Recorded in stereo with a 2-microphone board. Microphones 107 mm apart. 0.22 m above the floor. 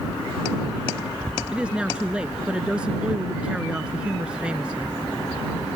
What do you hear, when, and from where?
1.5 s a woman speaking: 10° right (ahead or behind)